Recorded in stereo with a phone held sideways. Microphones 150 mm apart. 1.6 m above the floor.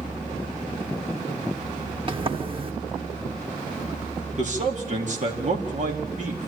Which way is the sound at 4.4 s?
55° right (ahead or behind).